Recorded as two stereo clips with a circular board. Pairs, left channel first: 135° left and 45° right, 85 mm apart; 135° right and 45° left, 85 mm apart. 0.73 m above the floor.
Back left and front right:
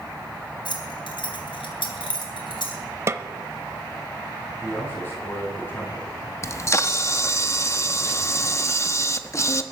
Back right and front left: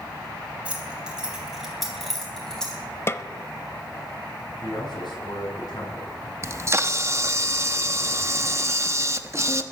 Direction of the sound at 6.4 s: 90° left.